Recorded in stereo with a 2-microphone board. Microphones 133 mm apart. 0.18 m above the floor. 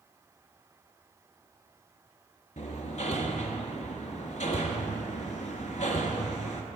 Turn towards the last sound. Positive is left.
turn(degrees=65)  # may be behind; listen again after turning